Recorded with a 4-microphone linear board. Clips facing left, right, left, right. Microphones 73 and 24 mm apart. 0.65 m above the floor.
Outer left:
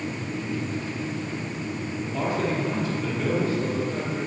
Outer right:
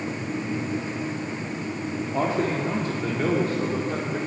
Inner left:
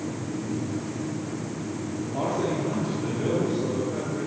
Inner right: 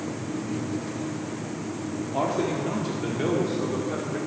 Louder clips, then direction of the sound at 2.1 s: Outer right 2 dB, inner right 1 dB; 30° right (ahead or behind).